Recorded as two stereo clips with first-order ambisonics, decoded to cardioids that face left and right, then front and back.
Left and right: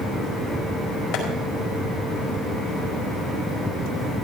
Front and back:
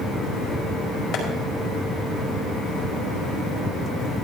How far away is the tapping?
About 5 m.